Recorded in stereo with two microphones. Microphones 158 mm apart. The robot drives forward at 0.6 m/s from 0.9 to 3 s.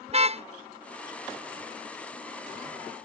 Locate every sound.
0.1 s a car horn: 40° right (ahead or behind)